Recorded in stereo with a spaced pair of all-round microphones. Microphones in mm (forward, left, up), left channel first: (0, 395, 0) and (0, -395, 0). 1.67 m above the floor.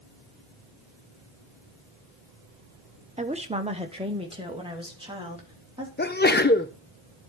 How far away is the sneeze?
About 0.6 m.